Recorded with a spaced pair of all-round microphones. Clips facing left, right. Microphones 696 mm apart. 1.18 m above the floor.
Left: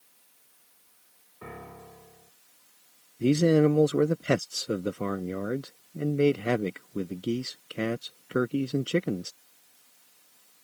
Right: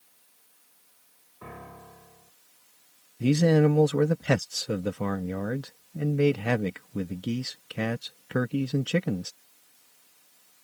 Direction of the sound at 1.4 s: 5° right (ahead or behind).